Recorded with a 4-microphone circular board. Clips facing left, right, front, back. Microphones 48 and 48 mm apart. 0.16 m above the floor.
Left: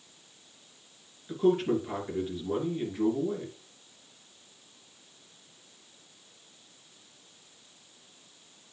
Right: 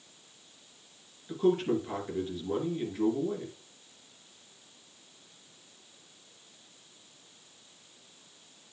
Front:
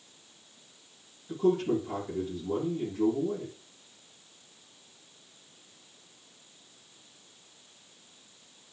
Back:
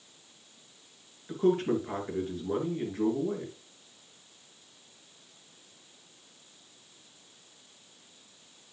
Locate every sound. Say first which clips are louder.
1.3 s a man speaking: left 1 dB, even; 175° left, 2.5 m